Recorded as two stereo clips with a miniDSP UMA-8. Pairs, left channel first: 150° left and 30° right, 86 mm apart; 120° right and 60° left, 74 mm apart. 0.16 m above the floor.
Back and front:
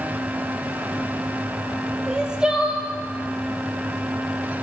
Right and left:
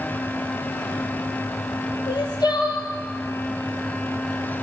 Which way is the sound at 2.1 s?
110° right.